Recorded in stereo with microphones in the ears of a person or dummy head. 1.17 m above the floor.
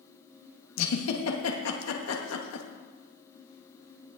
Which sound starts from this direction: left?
A giggle, at 0.8 s.